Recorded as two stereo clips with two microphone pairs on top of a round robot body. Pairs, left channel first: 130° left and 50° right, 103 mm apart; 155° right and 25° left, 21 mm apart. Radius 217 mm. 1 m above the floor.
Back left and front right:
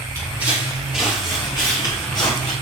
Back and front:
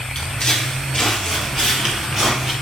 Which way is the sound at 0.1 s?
100° right.